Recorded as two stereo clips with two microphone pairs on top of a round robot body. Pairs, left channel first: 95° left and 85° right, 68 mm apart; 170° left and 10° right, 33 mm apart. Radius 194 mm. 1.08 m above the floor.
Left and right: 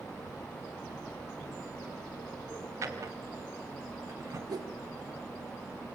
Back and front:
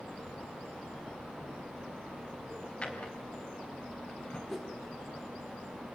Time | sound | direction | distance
2.8 | a drawer | 130° right | 3 m
4.5 | a whoosh | 105° right | 3.5 m